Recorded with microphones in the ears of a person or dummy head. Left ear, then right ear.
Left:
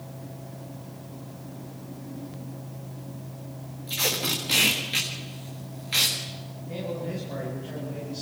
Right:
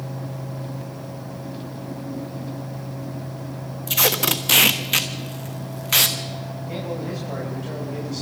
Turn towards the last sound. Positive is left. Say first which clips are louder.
# right 2 dB
turn(degrees=-80)